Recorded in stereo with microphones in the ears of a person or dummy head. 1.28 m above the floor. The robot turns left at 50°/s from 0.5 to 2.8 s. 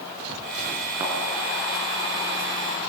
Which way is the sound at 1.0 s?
15° right (ahead or behind).